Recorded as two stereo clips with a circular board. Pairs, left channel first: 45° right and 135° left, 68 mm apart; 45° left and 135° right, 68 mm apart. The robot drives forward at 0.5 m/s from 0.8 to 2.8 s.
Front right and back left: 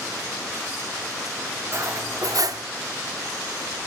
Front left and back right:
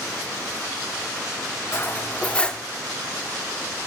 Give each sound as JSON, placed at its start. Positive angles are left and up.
{"t": 1.7, "sound": "cutlery clinking", "azimuth_deg": 95, "distance_m": 0.8}